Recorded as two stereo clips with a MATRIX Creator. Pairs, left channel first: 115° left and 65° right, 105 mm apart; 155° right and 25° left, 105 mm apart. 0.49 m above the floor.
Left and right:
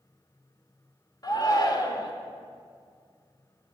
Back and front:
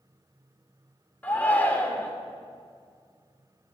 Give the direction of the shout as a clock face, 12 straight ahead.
7 o'clock.